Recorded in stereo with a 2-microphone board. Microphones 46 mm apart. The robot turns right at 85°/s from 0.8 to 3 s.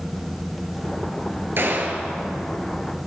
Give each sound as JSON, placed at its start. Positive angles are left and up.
{"t": 1.6, "sound": "a gunshot", "azimuth_deg": -75, "distance_m": 0.9}